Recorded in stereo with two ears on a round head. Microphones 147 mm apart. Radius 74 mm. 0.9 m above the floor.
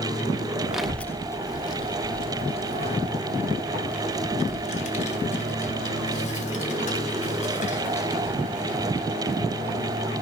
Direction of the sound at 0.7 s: 5° right (ahead or behind).